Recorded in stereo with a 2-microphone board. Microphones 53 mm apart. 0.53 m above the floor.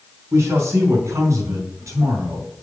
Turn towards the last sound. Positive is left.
turn(degrees=-70)  # may be behind; listen again after turning